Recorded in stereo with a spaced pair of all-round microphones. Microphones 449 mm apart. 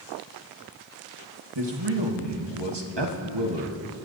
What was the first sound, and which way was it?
A man speaking, 65° right (ahead or behind).